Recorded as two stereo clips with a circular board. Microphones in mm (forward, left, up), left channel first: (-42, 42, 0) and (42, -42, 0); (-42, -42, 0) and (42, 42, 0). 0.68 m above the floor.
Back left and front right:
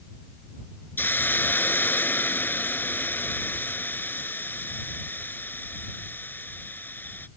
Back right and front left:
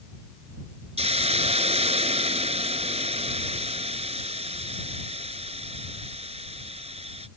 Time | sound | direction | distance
1.0 | a hiss | 65° left | ?